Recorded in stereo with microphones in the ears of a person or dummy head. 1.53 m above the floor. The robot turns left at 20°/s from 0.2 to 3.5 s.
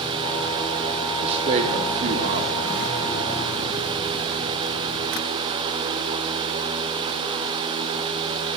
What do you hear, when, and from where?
1.2 s a man speaking: 35° right (ahead or behind), 0.7 m; by 2.6 s 50° right (ahead or behind), 0.7 m